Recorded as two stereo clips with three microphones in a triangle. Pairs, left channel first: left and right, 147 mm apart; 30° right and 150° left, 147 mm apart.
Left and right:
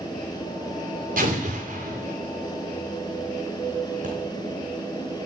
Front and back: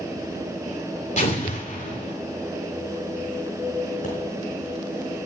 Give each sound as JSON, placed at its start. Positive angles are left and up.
{"t": 1.2, "sound": "an explosion", "azimuth_deg": -65, "distance_m": 3.0}
{"t": 4.0, "sound": "a pop", "azimuth_deg": -60, "distance_m": 4.5}